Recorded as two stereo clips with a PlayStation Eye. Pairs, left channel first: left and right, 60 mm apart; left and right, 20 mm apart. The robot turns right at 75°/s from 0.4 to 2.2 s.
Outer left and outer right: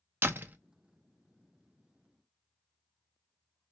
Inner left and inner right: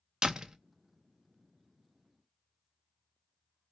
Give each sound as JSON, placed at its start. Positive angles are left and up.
{"t": 0.2, "sound": "a door slam", "side_deg": -35, "distance_m": 0.6}